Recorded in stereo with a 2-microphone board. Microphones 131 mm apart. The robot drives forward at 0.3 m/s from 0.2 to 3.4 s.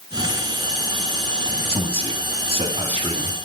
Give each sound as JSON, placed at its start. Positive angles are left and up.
{"t": 1.7, "sound": "a man speaking", "side_deg": -50, "distance_m": 2.0}